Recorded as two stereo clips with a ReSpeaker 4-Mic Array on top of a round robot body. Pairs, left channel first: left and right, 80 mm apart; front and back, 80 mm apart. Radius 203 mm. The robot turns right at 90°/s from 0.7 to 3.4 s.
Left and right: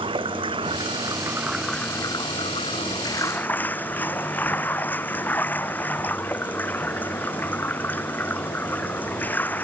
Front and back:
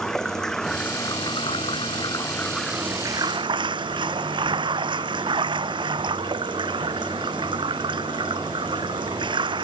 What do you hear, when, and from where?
0.0 s running water: 85° right; by 9.7 s 160° left